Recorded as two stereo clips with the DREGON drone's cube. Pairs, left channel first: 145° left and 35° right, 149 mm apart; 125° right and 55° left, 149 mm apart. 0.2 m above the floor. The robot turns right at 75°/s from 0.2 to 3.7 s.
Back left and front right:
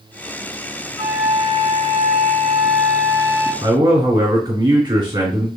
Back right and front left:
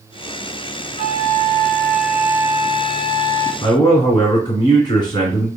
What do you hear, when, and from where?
1.0 s a flute: 120° right, 1.9 m; by 3.5 s 70° left, 1.9 m
3.6 s a man speaking: 85° right, 2 m; by 5.5 s 80° right, 2 m